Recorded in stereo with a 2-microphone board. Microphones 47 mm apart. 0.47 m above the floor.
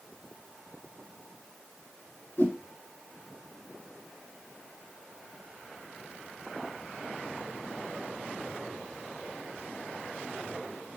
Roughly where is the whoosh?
Left.